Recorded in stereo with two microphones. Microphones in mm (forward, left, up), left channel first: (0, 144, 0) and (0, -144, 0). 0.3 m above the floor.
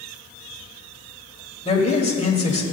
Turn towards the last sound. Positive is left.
turn(degrees=20)  # may be behind; listen again after turning